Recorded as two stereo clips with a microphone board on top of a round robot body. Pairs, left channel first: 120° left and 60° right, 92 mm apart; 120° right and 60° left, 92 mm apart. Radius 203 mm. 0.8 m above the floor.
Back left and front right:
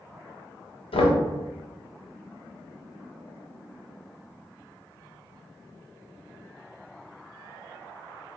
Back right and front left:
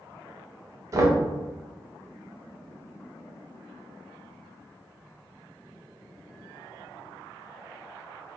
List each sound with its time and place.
0.9 s knocking: 115° left, 0.7 m